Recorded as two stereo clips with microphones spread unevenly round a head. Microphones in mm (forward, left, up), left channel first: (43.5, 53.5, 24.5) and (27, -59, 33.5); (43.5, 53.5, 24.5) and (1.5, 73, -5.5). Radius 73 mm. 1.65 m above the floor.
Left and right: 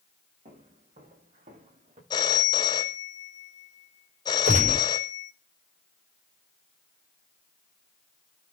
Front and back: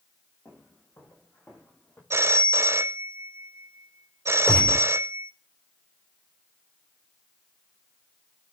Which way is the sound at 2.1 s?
110° left.